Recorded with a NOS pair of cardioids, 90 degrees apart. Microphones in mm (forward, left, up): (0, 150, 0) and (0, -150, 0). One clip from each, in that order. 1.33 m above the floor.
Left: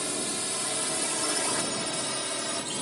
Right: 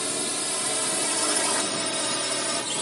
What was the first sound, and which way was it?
A drone, 20° right.